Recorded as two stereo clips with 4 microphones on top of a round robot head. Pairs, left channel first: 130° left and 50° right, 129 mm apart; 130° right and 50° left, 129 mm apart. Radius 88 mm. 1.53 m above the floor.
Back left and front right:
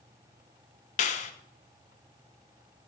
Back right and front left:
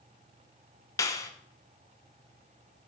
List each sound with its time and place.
1.0 s a clap: 165° left, 0.9 m